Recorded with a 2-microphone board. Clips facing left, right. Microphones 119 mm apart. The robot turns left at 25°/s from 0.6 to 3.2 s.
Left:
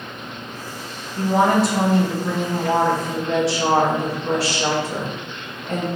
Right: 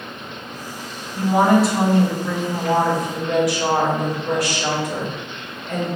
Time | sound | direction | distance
1.2 | a woman speaking | 165° right | 0.9 m